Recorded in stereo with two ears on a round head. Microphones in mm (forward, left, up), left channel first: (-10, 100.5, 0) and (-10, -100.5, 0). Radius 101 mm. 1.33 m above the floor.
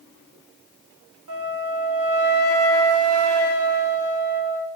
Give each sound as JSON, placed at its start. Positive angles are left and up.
{"t": 1.3, "sound": "a flute", "side_deg": -70, "distance_m": 3.0}